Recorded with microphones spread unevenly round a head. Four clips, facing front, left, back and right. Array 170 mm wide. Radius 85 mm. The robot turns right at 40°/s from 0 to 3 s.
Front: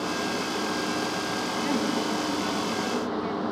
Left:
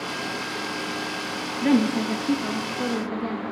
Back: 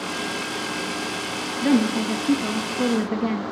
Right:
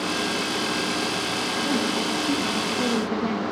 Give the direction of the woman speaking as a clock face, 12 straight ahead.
7 o'clock.